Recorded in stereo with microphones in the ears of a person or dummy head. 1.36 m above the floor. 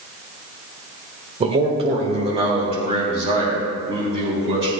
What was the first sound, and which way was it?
A man speaking, 30° right (ahead or behind).